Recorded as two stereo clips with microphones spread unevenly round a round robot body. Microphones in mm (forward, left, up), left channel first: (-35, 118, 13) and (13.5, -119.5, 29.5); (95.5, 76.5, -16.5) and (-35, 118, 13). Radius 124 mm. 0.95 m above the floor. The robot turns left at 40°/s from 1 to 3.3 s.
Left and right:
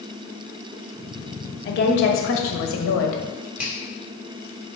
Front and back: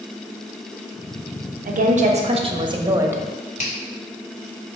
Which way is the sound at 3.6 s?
5° left.